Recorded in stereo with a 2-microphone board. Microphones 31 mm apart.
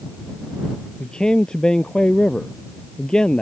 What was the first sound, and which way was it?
A man speaking, 25° left (ahead or behind).